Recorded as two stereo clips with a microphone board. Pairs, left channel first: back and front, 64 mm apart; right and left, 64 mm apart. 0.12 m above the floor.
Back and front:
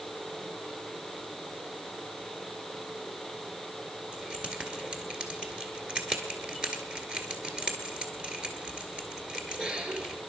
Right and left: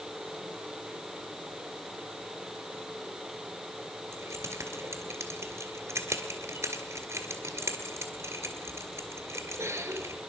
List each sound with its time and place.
4.1 s keys jangling: 70° left, 1.6 m